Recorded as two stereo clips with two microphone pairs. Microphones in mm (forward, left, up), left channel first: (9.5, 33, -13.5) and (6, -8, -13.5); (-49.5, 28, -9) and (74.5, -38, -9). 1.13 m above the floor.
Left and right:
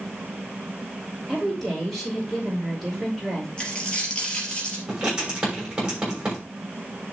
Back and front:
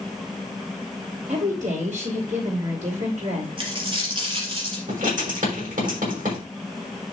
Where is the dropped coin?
20° left, 3 m.